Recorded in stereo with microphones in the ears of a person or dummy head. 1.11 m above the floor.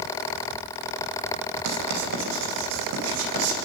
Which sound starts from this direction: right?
Writing, at 1.6 s.